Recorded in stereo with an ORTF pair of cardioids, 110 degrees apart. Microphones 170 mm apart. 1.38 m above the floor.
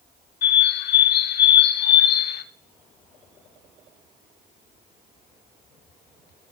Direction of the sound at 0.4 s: 70° left.